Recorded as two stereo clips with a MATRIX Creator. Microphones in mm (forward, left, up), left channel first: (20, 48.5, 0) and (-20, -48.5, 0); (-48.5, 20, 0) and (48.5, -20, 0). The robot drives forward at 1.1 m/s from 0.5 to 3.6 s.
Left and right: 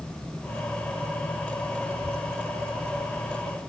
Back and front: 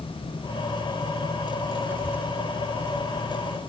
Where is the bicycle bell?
No bicycle bell in this recording.